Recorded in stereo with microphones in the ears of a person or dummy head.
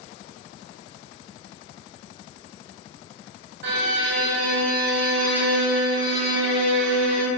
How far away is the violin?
About 0.9 m.